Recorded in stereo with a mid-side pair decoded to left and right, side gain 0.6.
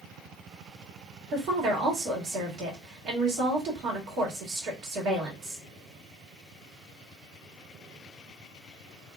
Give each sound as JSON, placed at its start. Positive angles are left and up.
{"t": 1.3, "sound": "a woman speaking", "azimuth_deg": -60, "distance_m": 1.8}